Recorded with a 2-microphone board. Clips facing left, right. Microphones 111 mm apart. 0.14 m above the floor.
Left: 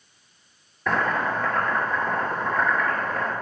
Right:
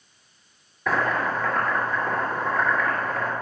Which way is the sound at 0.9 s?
Centre (ahead or behind).